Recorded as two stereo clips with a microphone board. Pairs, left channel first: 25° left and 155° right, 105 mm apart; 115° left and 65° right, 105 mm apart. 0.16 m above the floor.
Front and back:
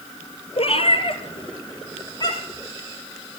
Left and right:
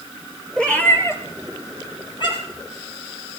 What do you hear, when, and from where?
0.6 s a cat meowing: 30° left, 1.9 m; by 2.6 s 80° left, 3.5 m